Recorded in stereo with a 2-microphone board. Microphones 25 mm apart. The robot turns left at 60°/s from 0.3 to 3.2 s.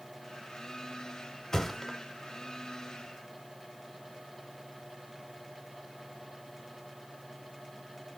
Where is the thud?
20° left (ahead or behind), 0.9 m; by 2.0 s 10° right (ahead or behind), 0.9 m.